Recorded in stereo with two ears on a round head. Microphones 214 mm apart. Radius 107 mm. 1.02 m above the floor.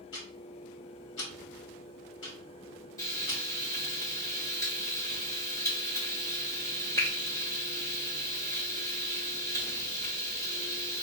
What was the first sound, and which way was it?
Ticking, 50° left (ahead or behind).